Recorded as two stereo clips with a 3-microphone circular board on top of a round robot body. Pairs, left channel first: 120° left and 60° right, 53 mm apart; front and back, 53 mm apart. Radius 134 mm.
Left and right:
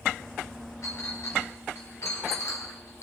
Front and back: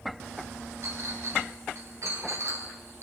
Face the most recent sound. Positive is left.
turn(degrees=145)